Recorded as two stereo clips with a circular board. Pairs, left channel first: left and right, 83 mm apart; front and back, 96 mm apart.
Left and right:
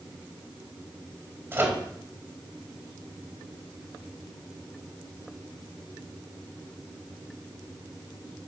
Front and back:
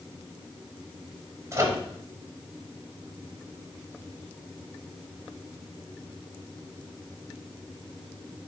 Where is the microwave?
140° right, 1.1 m.